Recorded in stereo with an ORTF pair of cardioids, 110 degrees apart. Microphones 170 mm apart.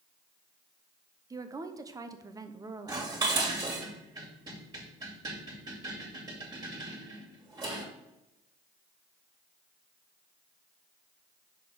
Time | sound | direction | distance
1.3 | a woman speaking | 20° right | 0.9 m
2.9 | dishes clattering | 25° right | 2.5 m